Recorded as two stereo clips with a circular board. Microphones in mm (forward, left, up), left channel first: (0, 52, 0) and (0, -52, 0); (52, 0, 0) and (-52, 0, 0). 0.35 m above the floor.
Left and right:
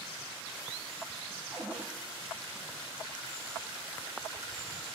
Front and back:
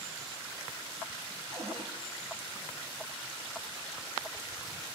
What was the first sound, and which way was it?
A cupboard door, 170° right.